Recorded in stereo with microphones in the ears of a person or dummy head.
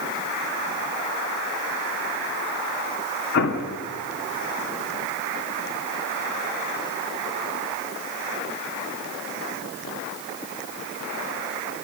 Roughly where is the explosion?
Left.